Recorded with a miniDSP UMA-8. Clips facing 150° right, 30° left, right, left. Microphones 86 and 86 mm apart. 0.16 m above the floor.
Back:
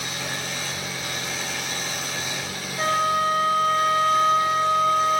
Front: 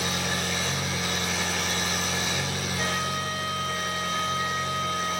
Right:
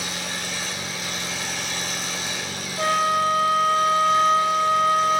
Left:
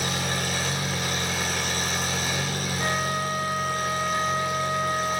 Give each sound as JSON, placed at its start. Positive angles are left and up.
{"t": 0.0, "sound": "an engine running", "azimuth_deg": 50, "distance_m": 8.5}
{"t": 2.8, "sound": "a flute", "azimuth_deg": -95, "distance_m": 1.4}